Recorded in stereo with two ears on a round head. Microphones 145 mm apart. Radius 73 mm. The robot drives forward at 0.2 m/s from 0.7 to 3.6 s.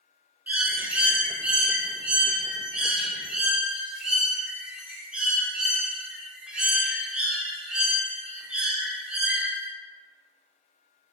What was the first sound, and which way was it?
A bird, 10° right (ahead or behind).